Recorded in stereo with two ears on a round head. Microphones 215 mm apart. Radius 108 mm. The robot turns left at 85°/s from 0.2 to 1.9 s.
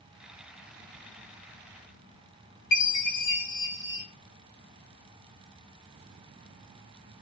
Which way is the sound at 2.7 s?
75° left (ahead or behind).